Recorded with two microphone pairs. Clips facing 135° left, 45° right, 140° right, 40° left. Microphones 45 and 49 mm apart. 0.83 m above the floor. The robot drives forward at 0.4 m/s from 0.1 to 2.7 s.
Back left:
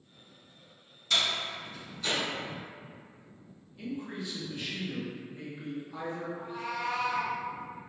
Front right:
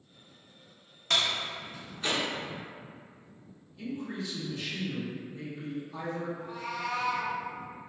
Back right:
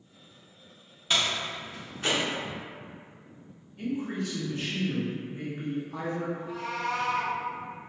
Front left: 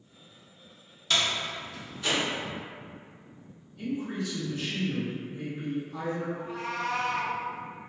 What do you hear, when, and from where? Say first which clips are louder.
1.1 s a door slam: front right 1 dB, even; 70° right, 0.8 m; by 2.2 s 105° right, 0.7 m
3.8 s a man speaking: front right 1 dB, back right 1 dB; 165° right, 0.8 m
6.3 s a cat meowing: back left 1 dB, even; 80° left, 0.6 m